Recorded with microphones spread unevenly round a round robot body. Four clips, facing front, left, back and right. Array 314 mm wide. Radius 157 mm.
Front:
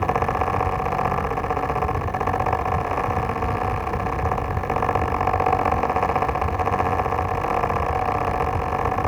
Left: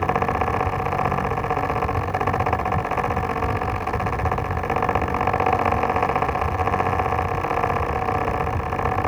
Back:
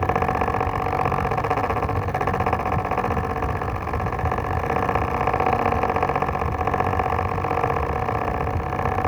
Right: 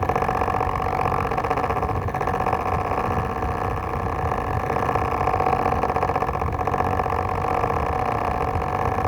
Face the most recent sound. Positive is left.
No sound to turn to.